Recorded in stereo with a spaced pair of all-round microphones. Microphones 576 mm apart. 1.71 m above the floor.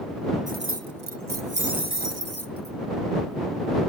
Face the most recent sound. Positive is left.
turn(degrees=-25)  # may be behind; listen again after turning